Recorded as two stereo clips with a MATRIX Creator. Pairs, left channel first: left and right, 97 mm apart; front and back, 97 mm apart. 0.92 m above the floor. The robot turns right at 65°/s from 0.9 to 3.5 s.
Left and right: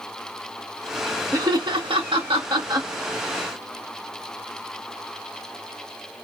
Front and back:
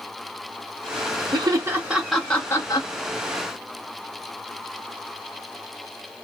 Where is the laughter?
140° right, 1.5 m; by 2.9 s 40° right, 1.5 m.